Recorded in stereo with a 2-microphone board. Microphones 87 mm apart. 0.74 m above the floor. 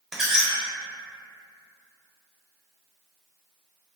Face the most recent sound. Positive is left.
turn(degrees=-5)  # may be behind; listen again after turning